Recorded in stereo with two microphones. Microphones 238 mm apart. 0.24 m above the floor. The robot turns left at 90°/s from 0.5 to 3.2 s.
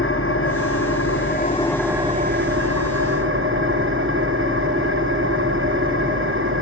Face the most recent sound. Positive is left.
turn(degrees=-125)